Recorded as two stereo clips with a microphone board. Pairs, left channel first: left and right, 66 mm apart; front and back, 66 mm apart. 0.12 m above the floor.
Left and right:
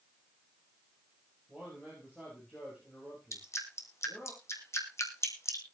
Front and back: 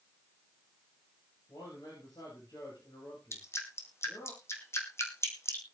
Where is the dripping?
45° left, 3 m.